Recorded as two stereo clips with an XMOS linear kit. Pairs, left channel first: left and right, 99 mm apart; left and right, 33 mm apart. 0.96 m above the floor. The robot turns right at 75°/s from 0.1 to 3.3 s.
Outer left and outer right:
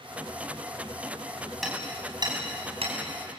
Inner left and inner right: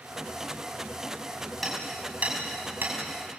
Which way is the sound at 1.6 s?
Centre (ahead or behind).